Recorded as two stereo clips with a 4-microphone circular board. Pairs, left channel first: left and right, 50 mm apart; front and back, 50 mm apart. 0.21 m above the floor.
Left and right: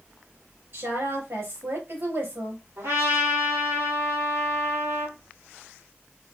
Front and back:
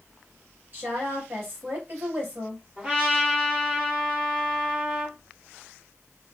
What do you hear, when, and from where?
0.7 s a woman speaking: 130° right, 3 m
2.8 s a trumpet: 120° right, 3.5 m